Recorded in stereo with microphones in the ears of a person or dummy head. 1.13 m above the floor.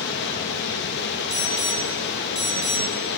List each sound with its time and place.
0.0 s running water: 65° left (ahead or behind), 1.2 m
1.3 s an alarm: 5° right (ahead or behind), 2.5 m